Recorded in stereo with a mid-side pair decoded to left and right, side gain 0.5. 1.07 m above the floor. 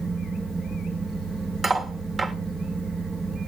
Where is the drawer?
I don't hear a drawer.